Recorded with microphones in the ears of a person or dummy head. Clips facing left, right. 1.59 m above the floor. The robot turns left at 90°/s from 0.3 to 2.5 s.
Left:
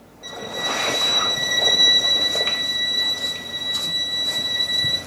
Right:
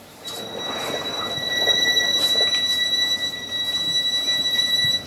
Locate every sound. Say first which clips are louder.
0.2 s a violin: left 2 dB; 125° left, 4.5 m; by 5.0 s 75° right, 4.5 m